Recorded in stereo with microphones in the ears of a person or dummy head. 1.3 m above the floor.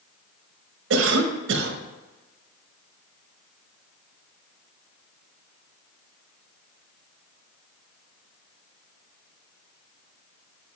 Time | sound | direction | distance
0.9 | a cough | 80° right | 1.3 m